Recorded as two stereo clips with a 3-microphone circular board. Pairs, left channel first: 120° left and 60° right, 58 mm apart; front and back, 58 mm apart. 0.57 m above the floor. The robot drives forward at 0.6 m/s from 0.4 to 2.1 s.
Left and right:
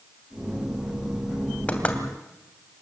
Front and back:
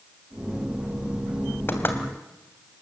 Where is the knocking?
50° left, 2.5 m; by 2.0 s 55° left, 2.5 m.